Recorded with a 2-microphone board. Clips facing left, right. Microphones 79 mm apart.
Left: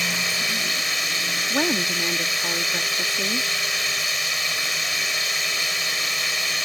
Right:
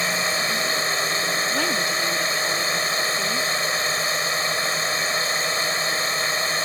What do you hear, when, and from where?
0.0 s a drone: 35° right (ahead or behind)
1.5 s a woman speaking: 25° left (ahead or behind)